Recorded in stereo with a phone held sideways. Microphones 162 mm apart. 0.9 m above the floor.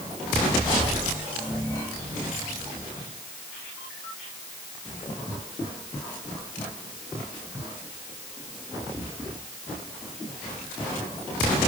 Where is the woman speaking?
No woman speaking in this recording.